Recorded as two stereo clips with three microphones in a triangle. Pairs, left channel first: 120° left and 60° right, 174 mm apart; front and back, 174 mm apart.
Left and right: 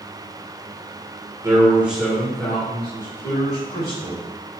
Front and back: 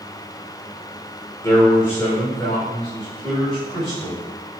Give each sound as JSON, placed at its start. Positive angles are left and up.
{"t": 1.4, "sound": "a man speaking", "azimuth_deg": -40, "distance_m": 1.5}